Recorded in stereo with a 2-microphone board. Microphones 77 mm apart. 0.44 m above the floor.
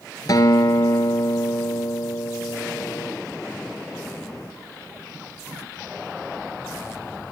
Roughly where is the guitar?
Left.